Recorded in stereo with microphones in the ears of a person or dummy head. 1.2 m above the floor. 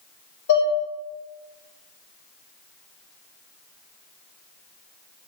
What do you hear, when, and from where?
0.5 s dishes clattering: 60° left (ahead or behind), 1.1 m